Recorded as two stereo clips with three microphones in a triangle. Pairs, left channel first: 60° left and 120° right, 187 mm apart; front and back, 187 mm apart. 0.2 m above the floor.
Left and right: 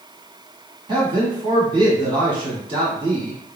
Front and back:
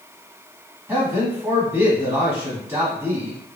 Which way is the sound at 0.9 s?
115° right.